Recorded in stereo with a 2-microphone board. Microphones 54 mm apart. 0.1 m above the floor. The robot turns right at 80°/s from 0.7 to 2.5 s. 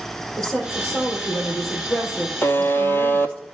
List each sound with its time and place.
0.4 s a woman speaking: 10° left, 3.5 m; by 3.4 s 155° left, 3.5 m
2.4 s a buzzer: 50° left (ahead or behind), 0.9 m; by 3.4 s 45° left (ahead or behind), 0.9 m